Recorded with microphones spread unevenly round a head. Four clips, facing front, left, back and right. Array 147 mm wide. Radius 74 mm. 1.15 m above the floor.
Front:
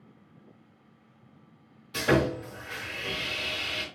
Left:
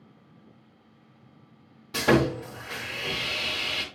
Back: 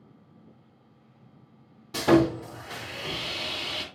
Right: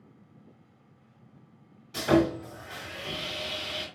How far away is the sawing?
About 2.5 m.